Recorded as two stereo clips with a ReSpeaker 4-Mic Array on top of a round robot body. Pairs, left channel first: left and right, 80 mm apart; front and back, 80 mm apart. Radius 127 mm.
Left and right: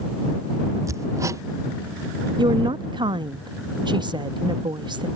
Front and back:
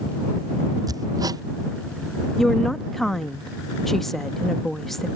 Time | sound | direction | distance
0.9 | hammering | 140° right | ?
2.4 | a woman speaking | 90° right | ?